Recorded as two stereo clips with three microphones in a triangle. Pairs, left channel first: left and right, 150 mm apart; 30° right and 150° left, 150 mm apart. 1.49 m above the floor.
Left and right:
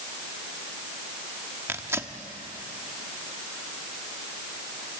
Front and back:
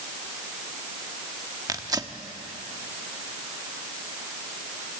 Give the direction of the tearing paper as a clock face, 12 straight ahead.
5 o'clock.